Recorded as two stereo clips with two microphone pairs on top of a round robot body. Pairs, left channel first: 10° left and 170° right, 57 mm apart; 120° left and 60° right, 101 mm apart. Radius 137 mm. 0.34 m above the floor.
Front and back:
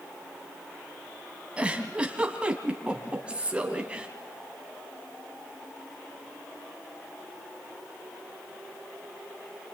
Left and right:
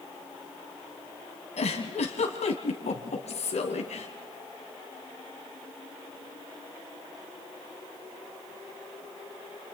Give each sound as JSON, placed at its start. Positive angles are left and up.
{"t": 1.6, "sound": "a giggle", "azimuth_deg": 120, "distance_m": 2.5}